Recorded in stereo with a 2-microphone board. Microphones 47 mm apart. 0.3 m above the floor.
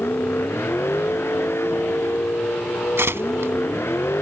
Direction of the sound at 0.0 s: 65° left (ahead or behind).